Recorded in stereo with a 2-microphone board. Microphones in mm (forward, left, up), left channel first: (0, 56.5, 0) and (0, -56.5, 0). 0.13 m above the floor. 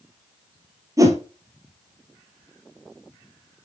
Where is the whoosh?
30° right (ahead or behind), 1.6 m.